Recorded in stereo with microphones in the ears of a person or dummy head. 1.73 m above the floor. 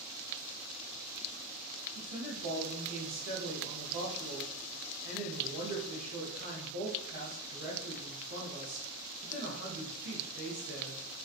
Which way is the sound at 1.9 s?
70° right (ahead or behind).